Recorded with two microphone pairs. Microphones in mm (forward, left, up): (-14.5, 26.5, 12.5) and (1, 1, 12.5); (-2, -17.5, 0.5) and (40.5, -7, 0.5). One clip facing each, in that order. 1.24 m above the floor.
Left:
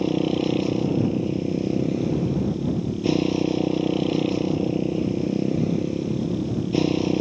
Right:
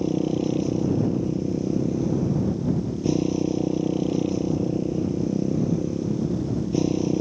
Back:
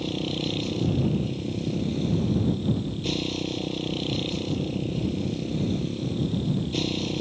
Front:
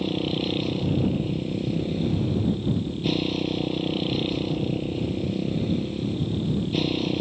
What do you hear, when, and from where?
0.0 s a motorcycle: 90° left